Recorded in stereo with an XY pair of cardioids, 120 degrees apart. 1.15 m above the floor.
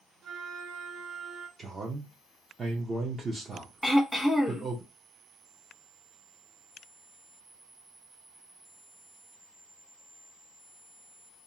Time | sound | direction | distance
0.2 | a flute | 60° right | 0.6 m
1.6 | a man speaking | 30° right | 0.7 m
3.8 | throat clearing | 5° right | 1.0 m